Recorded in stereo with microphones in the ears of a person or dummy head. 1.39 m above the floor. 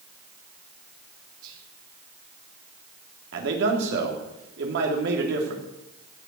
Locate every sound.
1.4 s whispering: 80° right, 3 m
3.3 s a man speaking: 70° right (ahead or behind), 3 m